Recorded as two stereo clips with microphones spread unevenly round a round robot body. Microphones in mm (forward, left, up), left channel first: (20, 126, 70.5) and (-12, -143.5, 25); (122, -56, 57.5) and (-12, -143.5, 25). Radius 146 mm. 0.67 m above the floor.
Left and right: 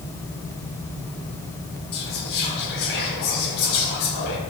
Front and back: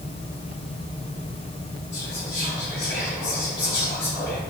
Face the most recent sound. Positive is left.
turn(degrees=115)